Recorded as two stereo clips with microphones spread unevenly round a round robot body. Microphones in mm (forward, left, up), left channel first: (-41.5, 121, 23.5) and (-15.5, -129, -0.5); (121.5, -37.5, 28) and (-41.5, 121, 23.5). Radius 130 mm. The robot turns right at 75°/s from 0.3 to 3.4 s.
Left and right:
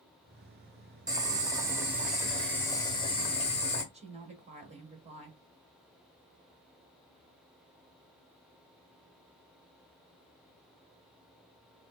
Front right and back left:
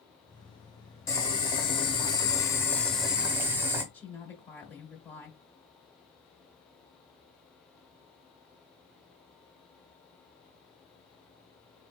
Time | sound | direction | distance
1.1 | boiling | 95° right | 1.1 m
3.9 | a woman speaking | 120° right | 1.3 m